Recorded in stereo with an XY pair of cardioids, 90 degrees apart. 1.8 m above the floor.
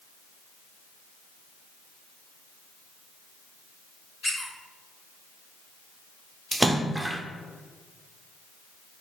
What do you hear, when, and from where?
4.2 s a squeak: 10° left, 3 m
6.5 s a splash: 10° right, 0.8 m